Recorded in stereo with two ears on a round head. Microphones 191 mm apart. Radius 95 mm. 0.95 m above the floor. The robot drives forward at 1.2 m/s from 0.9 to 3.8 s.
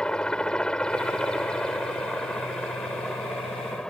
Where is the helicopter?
5° left (ahead or behind).